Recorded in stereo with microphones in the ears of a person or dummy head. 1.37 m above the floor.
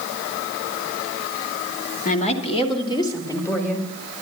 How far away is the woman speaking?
About 2.5 m.